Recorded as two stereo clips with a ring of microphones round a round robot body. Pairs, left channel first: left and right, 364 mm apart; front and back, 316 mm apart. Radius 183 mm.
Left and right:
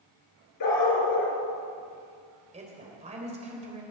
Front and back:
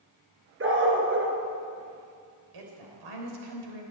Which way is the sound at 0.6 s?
130° left.